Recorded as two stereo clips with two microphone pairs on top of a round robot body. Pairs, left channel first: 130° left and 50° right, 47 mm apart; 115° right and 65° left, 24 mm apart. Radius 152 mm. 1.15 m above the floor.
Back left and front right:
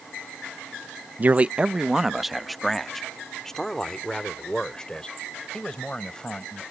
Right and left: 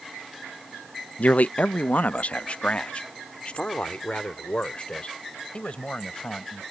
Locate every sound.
1.2 s a man speaking: 105° right; by 6.6 s 165° right